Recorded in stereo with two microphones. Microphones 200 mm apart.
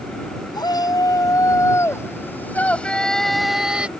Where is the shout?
20° left (ahead or behind); by 3.9 s 5° right (ahead or behind).